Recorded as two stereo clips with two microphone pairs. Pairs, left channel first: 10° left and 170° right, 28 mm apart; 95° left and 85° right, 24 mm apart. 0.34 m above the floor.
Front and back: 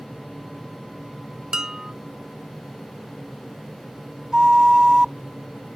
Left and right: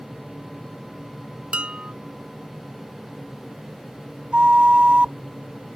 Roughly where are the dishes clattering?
Right.